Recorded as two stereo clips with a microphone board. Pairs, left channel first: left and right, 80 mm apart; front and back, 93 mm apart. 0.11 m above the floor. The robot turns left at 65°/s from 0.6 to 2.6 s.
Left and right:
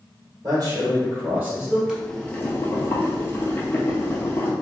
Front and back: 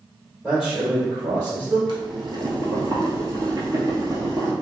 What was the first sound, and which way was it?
A man speaking, 80° right.